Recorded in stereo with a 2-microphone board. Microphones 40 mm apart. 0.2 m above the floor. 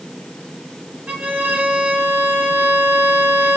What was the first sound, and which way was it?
A violin, 45° right (ahead or behind).